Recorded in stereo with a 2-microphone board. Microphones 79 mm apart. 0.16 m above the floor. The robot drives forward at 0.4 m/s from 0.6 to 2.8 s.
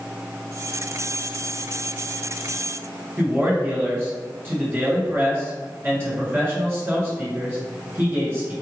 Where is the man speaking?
30° right (ahead or behind), 1.8 m.